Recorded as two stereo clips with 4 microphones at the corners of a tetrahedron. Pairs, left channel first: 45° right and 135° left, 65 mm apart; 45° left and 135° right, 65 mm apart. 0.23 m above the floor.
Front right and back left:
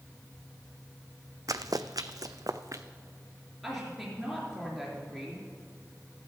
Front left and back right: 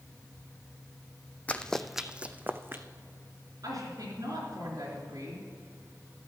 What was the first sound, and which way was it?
Running footsteps, 110° left.